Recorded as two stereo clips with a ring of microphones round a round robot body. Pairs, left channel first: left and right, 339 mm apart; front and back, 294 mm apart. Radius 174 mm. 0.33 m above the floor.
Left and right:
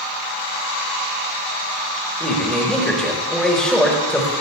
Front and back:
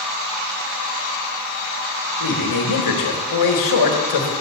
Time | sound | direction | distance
2.2 | a man speaking | 5° left | 4 m